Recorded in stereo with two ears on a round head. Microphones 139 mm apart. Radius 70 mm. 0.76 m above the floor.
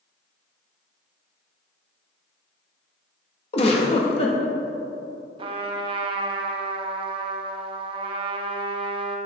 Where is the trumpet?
35° right (ahead or behind), 0.6 m.